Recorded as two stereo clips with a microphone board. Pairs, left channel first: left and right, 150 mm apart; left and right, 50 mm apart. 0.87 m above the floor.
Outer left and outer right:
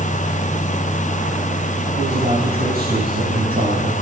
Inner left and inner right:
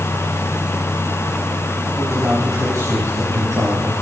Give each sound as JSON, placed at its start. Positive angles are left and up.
{"t": 2.0, "sound": "a man speaking", "side_deg": -85, "distance_m": 7.5}